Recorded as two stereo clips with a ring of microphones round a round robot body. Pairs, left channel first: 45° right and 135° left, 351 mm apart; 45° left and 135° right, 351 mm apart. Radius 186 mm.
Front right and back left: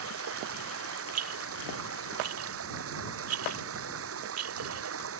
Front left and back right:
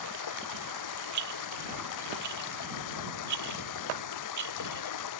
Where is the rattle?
175° right.